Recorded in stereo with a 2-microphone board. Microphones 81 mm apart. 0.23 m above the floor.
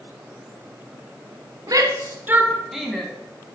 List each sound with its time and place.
1.7 s a shout: 50° right (ahead or behind), 1.5 m; by 3.1 s 10° left (ahead or behind), 1.6 m